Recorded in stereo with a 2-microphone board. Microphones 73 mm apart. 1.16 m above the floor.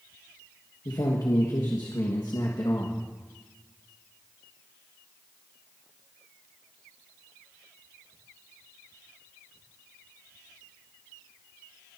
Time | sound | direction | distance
0.8 | a man speaking | 65° left (ahead or behind) | 1.6 m